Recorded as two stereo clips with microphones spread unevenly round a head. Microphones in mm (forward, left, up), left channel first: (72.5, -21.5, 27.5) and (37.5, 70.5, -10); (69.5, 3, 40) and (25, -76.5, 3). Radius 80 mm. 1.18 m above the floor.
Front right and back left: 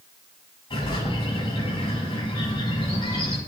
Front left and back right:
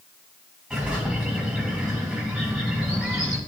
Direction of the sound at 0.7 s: 35° right.